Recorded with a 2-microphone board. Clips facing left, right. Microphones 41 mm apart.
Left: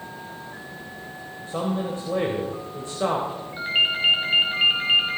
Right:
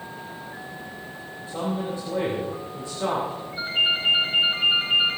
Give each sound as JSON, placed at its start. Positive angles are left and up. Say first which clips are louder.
{"t": 1.5, "sound": "a man speaking", "louder": "left 2 dB", "side_deg": 45, "distance_m": 3.0}
{"t": 3.6, "sound": "a ringtone", "louder": "left 1 dB", "side_deg": 65, "distance_m": 4.0}